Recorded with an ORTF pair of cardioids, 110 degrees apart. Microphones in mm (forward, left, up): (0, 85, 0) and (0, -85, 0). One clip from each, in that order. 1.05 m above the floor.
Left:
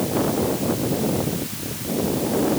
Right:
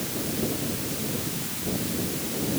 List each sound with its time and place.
Only background noise.